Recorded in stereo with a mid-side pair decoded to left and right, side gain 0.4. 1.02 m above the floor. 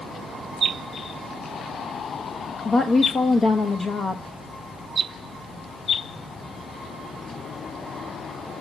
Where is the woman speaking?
45° left, 0.7 m.